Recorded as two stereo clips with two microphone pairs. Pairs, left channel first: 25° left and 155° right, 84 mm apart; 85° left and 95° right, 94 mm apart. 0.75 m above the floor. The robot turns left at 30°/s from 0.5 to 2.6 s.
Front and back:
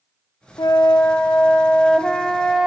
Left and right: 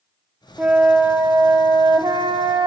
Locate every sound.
0.6 s a flute: 15° right, 0.7 m; by 2.7 s 75° right, 0.7 m